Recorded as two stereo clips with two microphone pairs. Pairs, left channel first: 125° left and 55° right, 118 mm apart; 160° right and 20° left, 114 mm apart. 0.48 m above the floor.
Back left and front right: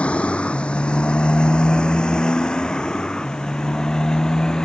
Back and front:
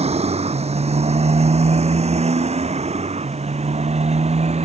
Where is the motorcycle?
45° left; by 4.7 s 40° left.